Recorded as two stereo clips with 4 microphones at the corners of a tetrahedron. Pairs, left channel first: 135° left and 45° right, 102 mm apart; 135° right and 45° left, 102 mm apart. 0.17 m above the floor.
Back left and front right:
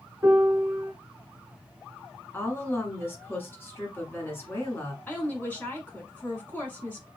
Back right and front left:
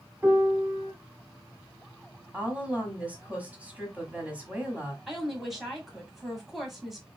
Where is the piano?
10° right, 1.2 m.